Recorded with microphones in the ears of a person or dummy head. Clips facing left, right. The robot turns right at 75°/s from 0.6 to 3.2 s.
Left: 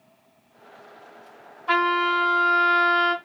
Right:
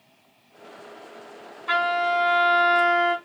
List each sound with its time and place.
1.7 s a trumpet: 30° right, 1.7 m; by 3.1 s 80° left, 1.7 m